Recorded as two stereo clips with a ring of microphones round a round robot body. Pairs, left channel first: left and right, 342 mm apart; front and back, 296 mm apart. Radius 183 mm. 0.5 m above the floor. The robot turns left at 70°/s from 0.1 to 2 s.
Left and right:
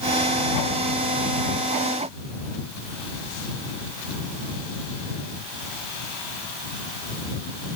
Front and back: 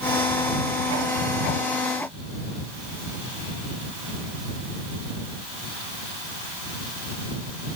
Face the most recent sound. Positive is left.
No sound to turn to.